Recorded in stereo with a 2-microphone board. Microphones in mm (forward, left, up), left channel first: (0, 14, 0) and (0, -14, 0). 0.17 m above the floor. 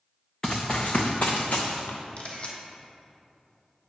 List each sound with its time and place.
0.4 s running footsteps: 20° left (ahead or behind), 0.9 m; by 2.0 s 80° left, 1.1 m
2.2 s a camera shutter: 40° left (ahead or behind), 1.1 m